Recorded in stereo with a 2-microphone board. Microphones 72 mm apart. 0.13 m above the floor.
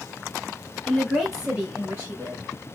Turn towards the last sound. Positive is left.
turn(degrees=-35)  # may be behind; listen again after turning